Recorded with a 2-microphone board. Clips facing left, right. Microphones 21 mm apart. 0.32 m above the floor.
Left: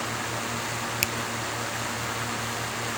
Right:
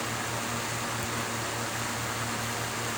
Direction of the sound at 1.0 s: 80° left.